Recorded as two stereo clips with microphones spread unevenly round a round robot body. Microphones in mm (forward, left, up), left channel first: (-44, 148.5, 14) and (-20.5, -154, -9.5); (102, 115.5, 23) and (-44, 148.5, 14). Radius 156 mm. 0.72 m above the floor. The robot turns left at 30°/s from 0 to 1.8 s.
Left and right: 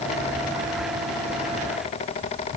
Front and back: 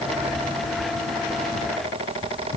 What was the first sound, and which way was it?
Only background noise.